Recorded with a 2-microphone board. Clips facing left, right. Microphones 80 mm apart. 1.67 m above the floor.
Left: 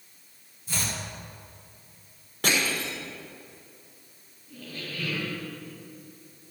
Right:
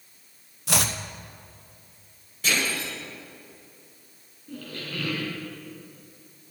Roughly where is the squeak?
Right.